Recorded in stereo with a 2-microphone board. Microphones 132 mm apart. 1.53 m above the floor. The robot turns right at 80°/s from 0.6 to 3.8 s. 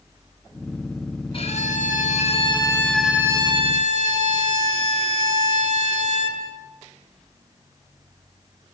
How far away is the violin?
About 4.5 m.